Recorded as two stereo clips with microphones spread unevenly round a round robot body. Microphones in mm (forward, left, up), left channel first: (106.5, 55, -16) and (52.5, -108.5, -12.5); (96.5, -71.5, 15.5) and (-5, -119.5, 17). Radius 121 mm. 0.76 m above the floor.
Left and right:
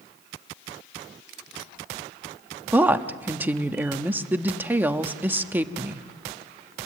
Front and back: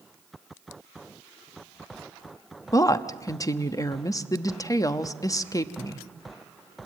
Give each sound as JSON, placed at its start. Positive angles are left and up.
{"t": 2.7, "sound": "a woman speaking", "azimuth_deg": -30, "distance_m": 1.1}